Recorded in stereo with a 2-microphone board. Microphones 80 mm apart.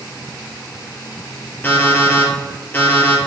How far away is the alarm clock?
About 2.5 m.